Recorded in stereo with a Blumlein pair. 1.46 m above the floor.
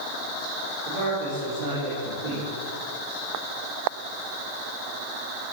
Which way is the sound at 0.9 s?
50° right.